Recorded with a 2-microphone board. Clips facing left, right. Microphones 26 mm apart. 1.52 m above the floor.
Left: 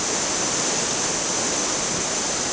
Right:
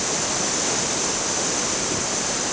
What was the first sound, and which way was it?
Only background noise.